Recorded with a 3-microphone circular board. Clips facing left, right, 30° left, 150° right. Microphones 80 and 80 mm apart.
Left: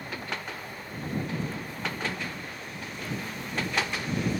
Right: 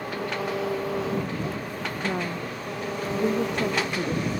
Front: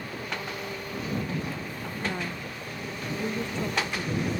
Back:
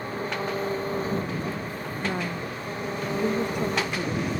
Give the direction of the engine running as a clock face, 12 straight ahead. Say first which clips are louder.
Right 7 dB, back 5 dB; 3 o'clock.